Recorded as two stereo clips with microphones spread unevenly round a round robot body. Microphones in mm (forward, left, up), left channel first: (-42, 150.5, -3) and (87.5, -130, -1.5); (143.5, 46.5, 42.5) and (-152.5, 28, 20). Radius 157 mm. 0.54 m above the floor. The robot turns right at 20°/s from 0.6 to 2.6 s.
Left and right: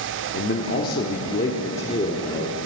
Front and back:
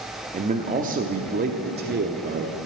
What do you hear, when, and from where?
0.3 s a man speaking: 145° left, 0.9 m; by 2.6 s 175° right, 0.9 m